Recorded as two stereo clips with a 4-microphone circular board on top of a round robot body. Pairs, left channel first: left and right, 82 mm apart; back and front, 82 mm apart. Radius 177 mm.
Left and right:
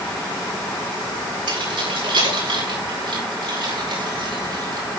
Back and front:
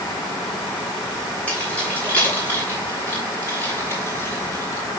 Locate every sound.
1.5 s keys jangling: 105° right, 8 m; by 5.0 s 120° right, 7 m